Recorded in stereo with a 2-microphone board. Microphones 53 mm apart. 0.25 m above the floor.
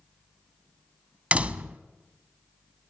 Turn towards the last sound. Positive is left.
turn(degrees=-25)  # may be behind; listen again after turning